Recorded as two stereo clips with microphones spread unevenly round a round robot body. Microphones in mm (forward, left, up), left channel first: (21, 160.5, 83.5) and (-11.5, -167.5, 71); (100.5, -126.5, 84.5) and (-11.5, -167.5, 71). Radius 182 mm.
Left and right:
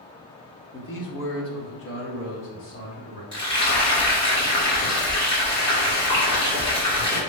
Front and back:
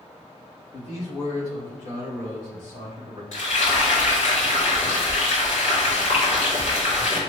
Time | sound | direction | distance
0.7 | a man speaking | 35° left | 1.1 m
3.3 | frying | 10° left | 1.9 m